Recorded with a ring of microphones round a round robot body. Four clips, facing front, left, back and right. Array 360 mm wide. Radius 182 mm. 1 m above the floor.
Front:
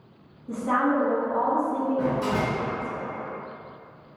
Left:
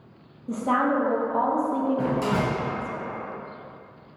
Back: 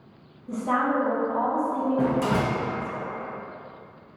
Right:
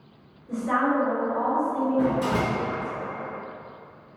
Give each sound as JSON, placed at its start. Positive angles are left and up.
{"t": 0.5, "sound": "a woman speaking", "azimuth_deg": 90, "distance_m": 0.8}
{"t": 2.0, "sound": "a door slam", "azimuth_deg": 170, "distance_m": 0.9}